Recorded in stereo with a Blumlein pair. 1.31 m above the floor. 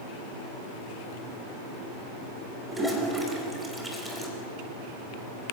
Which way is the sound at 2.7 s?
5° right.